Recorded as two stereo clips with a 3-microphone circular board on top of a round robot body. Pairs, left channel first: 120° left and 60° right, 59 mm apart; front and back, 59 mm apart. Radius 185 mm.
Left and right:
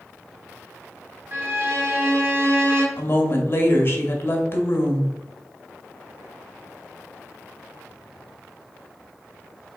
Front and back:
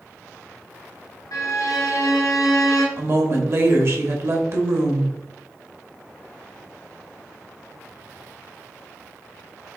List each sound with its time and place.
1.3 s a violin: 15° right, 1.0 m
3.0 s a woman speaking: 160° left, 1.4 m